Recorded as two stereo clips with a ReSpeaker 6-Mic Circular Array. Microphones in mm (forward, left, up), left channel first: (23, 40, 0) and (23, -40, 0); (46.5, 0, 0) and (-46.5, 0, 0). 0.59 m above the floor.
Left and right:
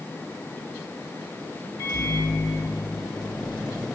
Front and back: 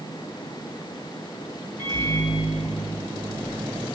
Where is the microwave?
125° left, 3 m.